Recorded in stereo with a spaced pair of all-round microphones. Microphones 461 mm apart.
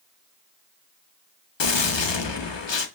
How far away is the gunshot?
About 0.5 m.